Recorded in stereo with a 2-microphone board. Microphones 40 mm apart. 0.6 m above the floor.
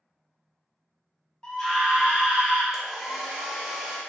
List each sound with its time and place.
1.4 s a scream: 20° left (ahead or behind), 1.3 m; by 2.6 s 40° right (ahead or behind), 1.7 m
2.7 s a hair dryer: 5° right (ahead or behind), 0.9 m